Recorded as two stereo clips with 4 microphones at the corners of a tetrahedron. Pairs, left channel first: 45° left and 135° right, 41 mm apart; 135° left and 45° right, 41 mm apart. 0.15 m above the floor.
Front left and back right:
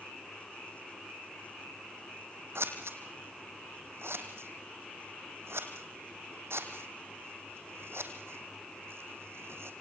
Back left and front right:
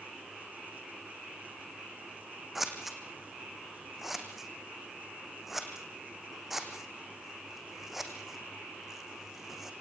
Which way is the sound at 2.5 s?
130° right.